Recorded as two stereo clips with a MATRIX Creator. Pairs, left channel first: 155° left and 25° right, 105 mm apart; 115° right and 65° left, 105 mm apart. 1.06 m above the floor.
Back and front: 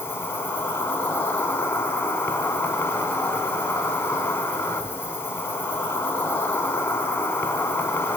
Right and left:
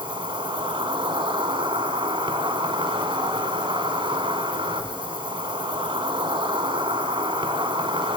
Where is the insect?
90° left, 1.8 m.